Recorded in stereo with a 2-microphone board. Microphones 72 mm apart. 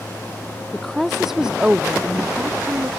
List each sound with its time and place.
0.7 s a woman speaking: 5° left (ahead or behind); by 2.9 s 30° right (ahead or behind)